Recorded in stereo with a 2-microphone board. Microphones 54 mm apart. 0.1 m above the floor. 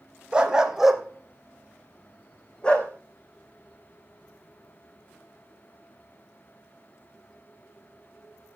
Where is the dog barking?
20° right (ahead or behind), 1.6 m; by 2.9 s 20° left (ahead or behind), 2 m.